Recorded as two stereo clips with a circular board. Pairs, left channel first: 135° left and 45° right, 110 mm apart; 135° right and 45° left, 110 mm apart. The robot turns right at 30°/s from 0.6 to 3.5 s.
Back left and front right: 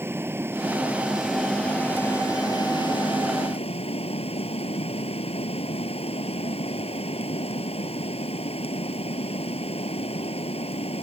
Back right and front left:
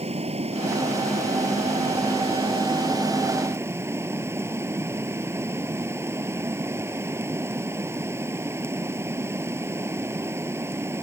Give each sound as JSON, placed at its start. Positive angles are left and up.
{"t": 0.0, "sound": "running water", "azimuth_deg": 25}